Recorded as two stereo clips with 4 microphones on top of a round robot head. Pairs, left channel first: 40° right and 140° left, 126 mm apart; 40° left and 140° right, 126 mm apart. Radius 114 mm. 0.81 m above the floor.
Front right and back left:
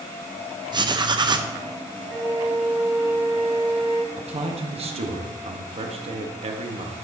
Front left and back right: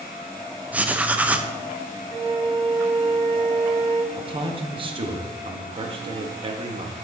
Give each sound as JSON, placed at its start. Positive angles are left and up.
{"t": 0.7, "sound": "writing", "azimuth_deg": 150, "distance_m": 0.7}
{"t": 2.1, "sound": "a flute", "azimuth_deg": -145, "distance_m": 0.8}
{"t": 4.1, "sound": "a man speaking", "azimuth_deg": 175, "distance_m": 1.0}